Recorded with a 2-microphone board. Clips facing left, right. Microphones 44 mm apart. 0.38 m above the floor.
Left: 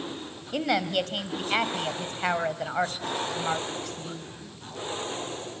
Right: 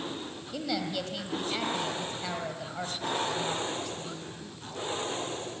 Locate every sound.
0.5 s a woman speaking: 60° left (ahead or behind), 2 m